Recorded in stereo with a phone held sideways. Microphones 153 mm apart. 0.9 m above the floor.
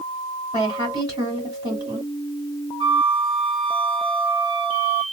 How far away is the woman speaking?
About 2.5 m.